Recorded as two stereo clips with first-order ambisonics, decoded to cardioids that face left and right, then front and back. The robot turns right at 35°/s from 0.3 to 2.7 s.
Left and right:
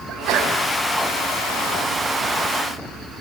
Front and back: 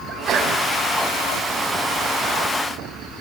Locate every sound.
0.1 s a sneeze: 125° right, 5.5 m; by 0.6 s 115° right, 5.5 m